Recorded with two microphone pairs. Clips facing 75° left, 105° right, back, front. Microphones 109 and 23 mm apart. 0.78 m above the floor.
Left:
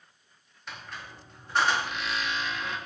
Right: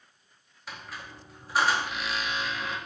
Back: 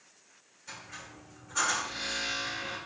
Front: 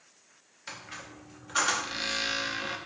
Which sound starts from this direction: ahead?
A squeak, at 0.7 s.